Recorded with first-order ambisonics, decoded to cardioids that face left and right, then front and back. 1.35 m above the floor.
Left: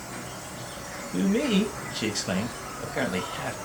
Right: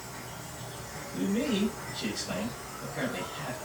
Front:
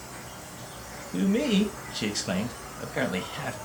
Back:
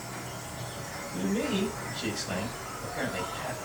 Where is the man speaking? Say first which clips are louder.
Left 5 dB, front 5 dB; 45° left, 0.9 m.